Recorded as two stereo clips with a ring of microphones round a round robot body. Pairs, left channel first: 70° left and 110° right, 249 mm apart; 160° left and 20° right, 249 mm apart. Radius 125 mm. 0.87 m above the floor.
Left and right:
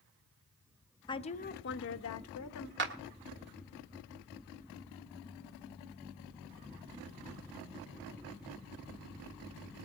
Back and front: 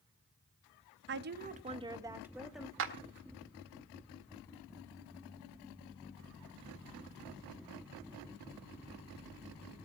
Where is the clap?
65° right, 1.7 m.